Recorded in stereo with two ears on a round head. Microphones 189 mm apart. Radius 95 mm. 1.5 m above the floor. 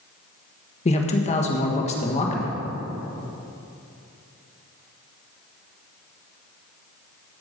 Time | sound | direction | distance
0.8 | a man speaking | 35° left (ahead or behind) | 1.5 m